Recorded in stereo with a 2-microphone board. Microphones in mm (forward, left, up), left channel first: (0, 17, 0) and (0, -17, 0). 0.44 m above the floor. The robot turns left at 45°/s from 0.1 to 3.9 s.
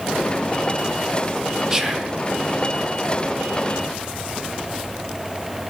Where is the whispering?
15° right (ahead or behind), 0.9 m; by 2.2 s 20° right (ahead or behind), 0.9 m.